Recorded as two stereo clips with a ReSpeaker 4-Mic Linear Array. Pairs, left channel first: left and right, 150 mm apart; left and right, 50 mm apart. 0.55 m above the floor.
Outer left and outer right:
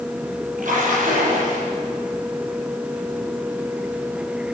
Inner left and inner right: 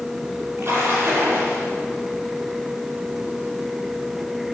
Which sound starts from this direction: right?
A splash, at 0.6 s.